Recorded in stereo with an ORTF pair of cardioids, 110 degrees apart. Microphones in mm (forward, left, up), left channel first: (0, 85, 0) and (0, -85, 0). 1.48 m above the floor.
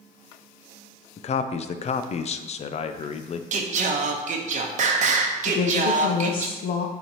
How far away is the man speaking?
About 0.6 m.